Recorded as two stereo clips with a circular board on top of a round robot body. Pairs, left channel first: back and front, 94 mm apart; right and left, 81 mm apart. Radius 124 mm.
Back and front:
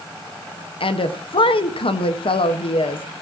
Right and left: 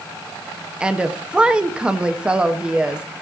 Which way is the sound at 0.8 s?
165° left.